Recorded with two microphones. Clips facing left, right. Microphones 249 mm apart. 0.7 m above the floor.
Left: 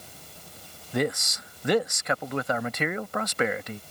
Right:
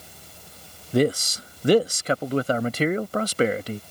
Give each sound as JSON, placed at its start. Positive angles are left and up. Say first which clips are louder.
{"t": 0.9, "sound": "a man speaking", "louder": "right 7 dB", "side_deg": -35}